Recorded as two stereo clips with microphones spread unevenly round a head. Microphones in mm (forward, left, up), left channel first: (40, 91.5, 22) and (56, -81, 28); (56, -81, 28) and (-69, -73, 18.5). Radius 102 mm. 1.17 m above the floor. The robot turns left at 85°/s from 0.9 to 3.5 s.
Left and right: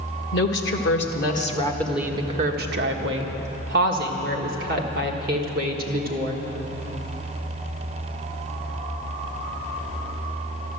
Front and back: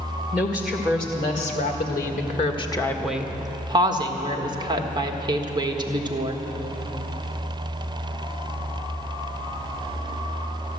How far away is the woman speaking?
About 1.6 m.